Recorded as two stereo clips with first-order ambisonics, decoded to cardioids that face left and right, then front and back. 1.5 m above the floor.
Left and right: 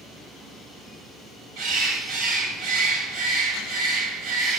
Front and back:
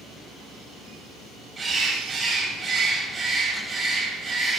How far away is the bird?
About 2.5 m.